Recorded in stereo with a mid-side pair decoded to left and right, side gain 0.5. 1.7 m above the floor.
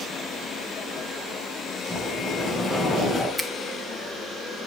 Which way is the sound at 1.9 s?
20° left.